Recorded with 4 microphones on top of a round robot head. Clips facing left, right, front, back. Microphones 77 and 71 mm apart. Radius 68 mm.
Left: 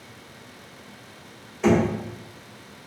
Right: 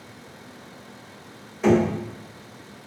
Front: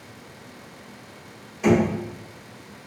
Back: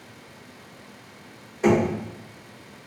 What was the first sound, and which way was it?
Knocking, 165° right.